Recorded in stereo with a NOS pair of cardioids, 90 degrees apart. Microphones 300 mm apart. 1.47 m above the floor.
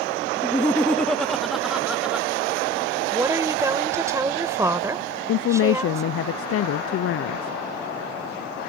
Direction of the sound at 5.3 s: 50° left.